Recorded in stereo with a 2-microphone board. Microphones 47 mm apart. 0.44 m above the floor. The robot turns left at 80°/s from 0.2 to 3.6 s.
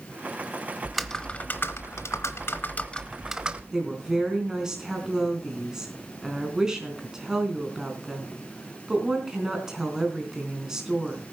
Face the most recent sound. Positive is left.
turn(degrees=-15)  # may be behind; listen again after turning